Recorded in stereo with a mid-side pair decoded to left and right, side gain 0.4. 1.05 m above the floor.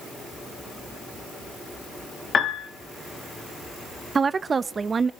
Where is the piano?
50° left, 1.7 m.